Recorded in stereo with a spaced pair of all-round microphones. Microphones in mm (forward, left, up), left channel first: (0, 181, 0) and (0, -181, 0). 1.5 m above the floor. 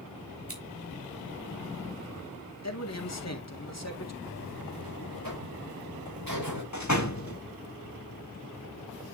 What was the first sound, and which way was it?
Scissors, 35° right (ahead or behind).